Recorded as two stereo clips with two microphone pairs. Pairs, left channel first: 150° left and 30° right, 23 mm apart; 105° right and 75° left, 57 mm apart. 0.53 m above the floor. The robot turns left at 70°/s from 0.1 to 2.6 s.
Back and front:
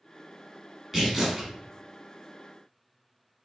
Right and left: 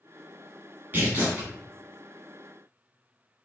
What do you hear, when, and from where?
0.9 s tearing paper: 45° left, 1.2 m; by 1.5 s 5° left, 1.2 m